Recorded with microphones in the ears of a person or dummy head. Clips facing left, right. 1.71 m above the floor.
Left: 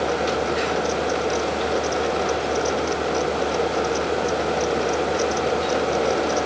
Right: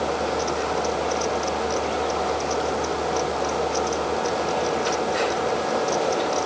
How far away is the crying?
No crying in this recording.